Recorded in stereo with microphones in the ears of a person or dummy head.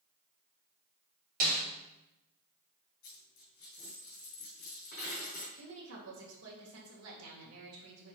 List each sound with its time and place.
1.4 s a snare drum: 40° right (ahead or behind), 1.6 m
3.0 s a dropped coin: 45° left (ahead or behind), 3 m
5.5 s a woman speaking: 80° right, 2 m